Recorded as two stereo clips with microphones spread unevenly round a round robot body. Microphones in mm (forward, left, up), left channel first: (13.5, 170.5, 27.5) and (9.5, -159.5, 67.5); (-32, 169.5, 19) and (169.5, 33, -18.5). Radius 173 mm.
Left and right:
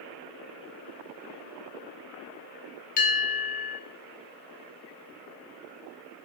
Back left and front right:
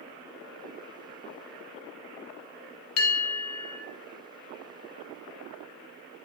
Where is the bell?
145° left, 0.7 m.